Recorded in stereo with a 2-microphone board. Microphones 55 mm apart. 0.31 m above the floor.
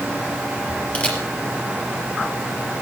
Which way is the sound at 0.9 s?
25° left (ahead or behind).